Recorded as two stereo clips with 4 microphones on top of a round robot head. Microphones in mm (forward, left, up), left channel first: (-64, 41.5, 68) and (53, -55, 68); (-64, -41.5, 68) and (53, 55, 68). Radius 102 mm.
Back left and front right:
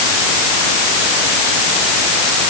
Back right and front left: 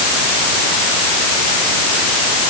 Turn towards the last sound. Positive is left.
No sound to turn to.